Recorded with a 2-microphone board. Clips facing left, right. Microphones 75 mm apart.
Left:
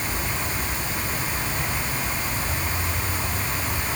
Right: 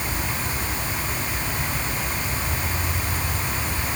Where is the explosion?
I don't hear an explosion.